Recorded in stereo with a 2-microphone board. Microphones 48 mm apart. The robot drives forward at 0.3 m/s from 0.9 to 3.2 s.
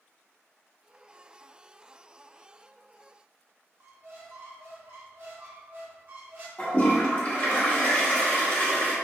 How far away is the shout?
No shout in this recording.